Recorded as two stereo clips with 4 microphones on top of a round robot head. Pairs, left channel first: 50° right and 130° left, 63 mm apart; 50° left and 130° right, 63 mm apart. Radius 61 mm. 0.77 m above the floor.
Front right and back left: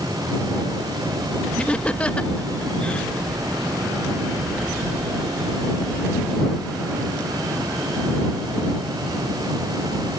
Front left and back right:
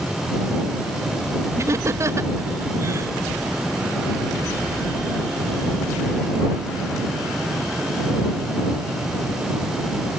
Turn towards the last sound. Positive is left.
turn(degrees=-120)